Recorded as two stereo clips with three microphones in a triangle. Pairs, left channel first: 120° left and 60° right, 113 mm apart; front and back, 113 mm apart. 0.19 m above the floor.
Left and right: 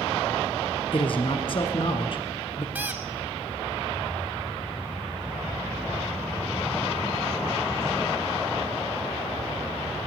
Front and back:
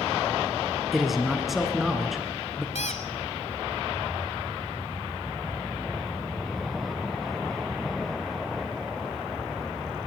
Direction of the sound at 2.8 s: 15° left.